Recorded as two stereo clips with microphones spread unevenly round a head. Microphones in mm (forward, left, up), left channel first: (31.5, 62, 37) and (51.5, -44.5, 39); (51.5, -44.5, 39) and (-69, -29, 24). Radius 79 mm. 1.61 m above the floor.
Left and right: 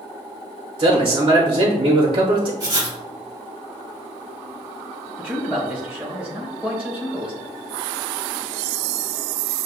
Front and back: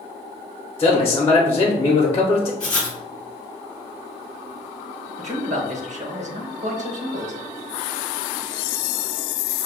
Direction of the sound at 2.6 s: 70° right.